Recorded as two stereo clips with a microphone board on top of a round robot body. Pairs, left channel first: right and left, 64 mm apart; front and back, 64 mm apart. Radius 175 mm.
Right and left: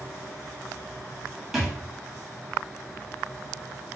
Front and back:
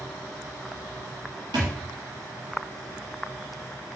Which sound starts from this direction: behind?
A thud, at 1.5 s.